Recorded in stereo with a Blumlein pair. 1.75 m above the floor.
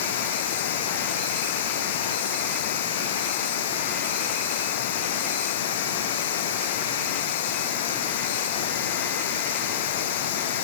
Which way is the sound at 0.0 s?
55° left.